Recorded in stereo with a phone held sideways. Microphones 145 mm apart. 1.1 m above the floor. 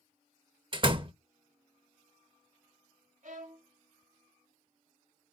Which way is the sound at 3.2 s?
60° right (ahead or behind).